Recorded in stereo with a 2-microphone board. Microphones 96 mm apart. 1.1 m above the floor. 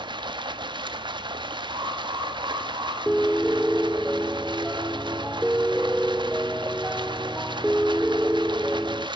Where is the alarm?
55° right (ahead or behind), 9 m.